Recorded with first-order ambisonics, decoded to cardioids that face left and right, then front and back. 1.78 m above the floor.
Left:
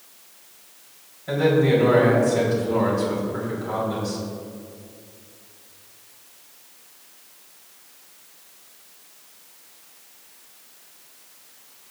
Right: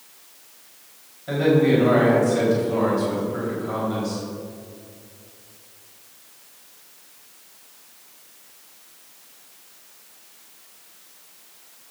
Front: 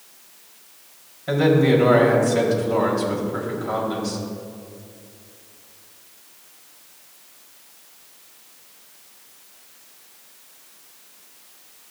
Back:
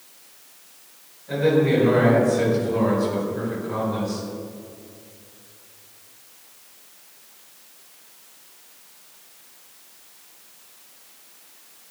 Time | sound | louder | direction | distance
1.3 | a man speaking | even, front 2 dB | straight ahead | 4 m